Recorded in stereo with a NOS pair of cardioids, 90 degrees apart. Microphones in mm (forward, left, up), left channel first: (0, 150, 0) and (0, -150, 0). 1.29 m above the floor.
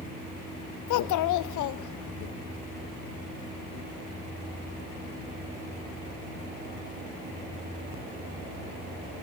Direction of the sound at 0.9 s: 70° left.